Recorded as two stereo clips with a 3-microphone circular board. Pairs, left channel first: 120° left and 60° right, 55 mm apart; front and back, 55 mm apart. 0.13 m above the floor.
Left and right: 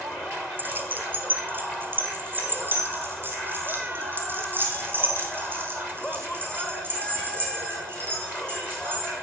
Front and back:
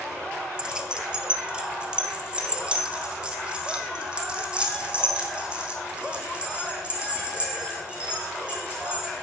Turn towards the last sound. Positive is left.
turn(degrees=-110)